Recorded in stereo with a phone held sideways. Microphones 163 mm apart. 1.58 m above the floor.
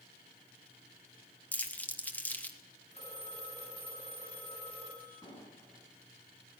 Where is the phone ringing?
40° left (ahead or behind), 8 m.